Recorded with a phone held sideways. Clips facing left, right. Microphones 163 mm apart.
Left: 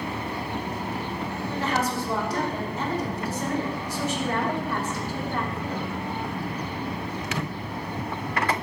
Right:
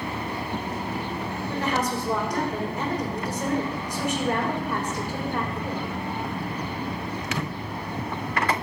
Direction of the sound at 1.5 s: 15° right (ahead or behind).